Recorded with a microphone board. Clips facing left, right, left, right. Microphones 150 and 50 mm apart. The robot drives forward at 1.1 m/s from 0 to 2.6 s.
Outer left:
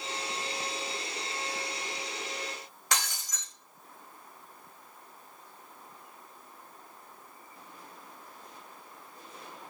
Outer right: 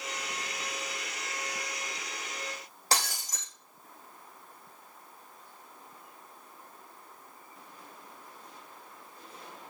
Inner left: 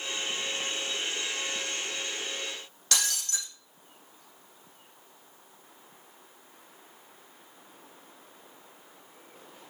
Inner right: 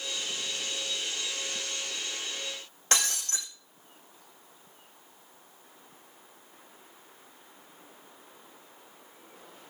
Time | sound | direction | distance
2.9 | breaking glass | 35° right (ahead or behind) | 5.5 m